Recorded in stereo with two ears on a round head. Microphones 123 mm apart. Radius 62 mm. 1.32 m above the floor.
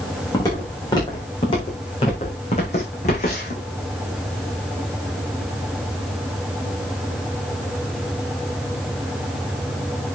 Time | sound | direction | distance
0.3 | footsteps | 25° left (ahead or behind) | 6.5 m